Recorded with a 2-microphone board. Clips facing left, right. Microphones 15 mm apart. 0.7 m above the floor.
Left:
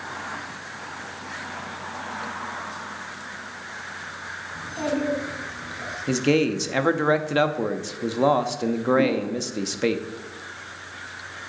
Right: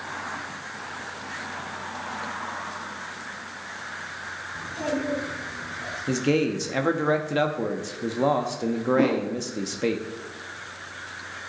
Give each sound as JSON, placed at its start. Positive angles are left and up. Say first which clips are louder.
{"t": 4.5, "sound": "a child speaking", "louder": "left 2 dB", "side_deg": 45, "distance_m": 3.0}
{"t": 6.1, "sound": "a man speaking", "louder": "left 2 dB", "side_deg": 20, "distance_m": 0.7}
{"t": 9.0, "sound": "a whoosh", "louder": "right 1 dB", "side_deg": -65, "distance_m": 0.8}